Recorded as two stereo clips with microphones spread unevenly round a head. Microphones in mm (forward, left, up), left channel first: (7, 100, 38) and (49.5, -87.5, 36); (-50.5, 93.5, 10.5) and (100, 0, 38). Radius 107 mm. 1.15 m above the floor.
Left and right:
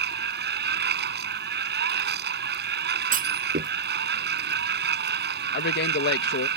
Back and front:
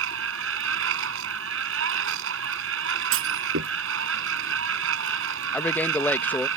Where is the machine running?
40° right.